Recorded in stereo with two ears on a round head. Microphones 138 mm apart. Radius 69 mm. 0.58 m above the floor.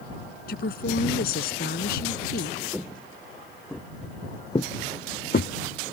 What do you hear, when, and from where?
0.5 s a woman speaking: 65° left (ahead or behind)
2.7 s footsteps: 10° right (ahead or behind); by 5.9 s 70° left (ahead or behind)